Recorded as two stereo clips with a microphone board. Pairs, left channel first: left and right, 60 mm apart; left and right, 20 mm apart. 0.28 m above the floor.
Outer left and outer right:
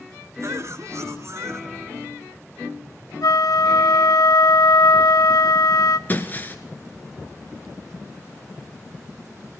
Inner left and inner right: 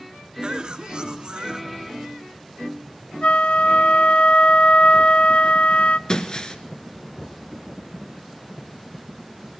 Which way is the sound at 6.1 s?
30° left (ahead or behind).